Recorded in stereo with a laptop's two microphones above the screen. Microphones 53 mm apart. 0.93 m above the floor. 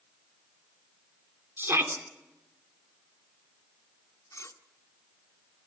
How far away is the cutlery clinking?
About 1.6 m.